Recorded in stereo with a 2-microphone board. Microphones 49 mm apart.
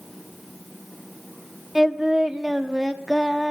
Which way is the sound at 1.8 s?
10° right (ahead or behind).